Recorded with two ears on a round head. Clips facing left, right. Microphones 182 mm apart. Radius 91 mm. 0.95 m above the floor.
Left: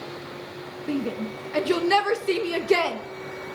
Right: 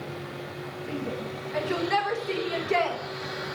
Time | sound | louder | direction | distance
0.9 | a shout | left 6 dB | 50° left (ahead or behind) | 1.2 m